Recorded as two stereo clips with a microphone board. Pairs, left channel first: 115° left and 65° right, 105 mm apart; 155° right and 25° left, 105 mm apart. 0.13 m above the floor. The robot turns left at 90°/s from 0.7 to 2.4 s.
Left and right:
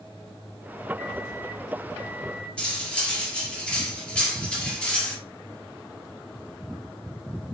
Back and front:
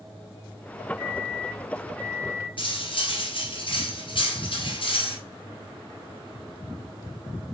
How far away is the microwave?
About 1.2 m.